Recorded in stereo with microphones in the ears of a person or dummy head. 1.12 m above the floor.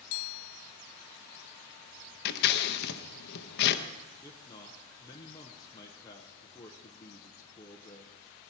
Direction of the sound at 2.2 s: 60° left (ahead or behind).